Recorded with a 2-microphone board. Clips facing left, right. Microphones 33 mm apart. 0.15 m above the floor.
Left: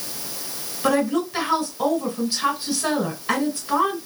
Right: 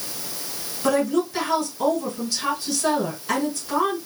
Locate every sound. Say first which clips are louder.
0.8 s a woman speaking: even; 30° left (ahead or behind), 1.5 m